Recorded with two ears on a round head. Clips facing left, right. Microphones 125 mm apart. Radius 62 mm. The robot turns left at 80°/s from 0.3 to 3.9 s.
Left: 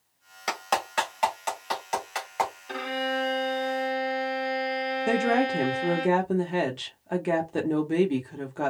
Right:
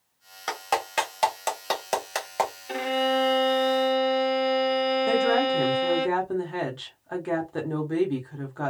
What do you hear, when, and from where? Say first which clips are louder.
0.5 s a clap: right 1 dB; 10° left (ahead or behind), 1.4 m; by 2.5 s 25° right (ahead or behind), 1.4 m
2.7 s a violin: right 5 dB; 25° right, 1.5 m; by 6.1 s 120° right, 1.5 m
5.1 s a woman speaking: left 1 dB; 20° left (ahead or behind), 0.9 m